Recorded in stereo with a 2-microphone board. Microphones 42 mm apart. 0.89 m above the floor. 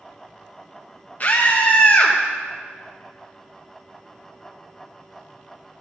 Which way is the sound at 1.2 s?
40° left (ahead or behind).